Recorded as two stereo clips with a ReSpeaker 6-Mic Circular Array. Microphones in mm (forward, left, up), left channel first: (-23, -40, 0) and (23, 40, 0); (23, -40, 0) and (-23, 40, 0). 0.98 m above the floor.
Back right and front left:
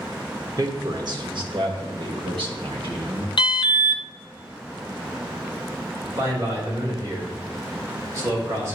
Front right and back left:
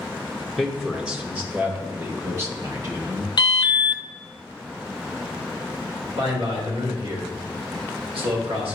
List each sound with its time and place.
0.6 s a man speaking: 25° left, 1.1 m; by 3.3 s 70° left, 2 m
3.4 s an alarm: 95° right, 0.5 m
6.2 s a man speaking: 115° left, 2.5 m